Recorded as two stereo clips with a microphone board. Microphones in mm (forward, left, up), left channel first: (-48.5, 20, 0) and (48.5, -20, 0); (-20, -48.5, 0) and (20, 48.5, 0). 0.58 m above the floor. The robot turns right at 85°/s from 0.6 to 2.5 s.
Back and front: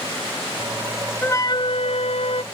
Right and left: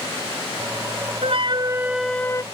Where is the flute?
85° left; by 2.4 s 170° right.